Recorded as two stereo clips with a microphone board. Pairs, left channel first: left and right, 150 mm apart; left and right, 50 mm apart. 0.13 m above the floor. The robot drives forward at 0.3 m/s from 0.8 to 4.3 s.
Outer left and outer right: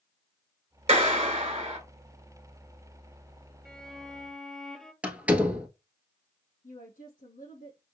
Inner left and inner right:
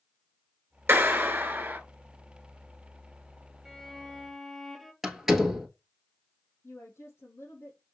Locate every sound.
0.9 s a clap: 45° right (ahead or behind), 1.2 m
3.6 s a violin: 5° left (ahead or behind), 0.6 m
5.0 s a door slam: 10° right (ahead or behind), 1.3 m
6.6 s a woman speaking: 70° left (ahead or behind), 3.5 m